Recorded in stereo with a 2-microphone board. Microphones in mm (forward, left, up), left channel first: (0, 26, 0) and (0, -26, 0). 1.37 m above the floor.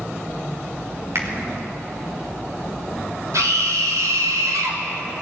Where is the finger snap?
60° right (ahead or behind), 5 m.